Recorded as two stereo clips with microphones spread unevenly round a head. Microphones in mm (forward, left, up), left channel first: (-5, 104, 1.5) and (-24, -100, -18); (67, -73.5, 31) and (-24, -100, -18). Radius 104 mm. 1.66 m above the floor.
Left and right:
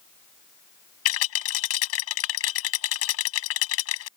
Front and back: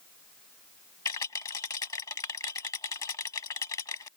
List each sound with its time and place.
1.1 s a rattle: 75° left